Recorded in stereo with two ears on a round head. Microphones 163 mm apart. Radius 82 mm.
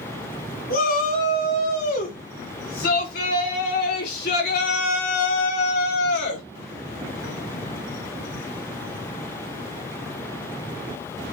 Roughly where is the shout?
Left.